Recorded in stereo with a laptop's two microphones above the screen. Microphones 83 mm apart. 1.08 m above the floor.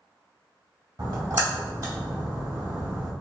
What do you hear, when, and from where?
1.0 s a splash: 55° right (ahead or behind), 1.6 m